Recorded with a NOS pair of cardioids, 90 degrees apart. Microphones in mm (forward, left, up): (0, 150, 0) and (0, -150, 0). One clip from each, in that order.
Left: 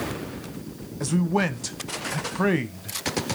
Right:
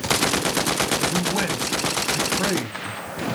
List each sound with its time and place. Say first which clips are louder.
1.0 s a man speaking: right 3 dB; 25° left, 1.3 m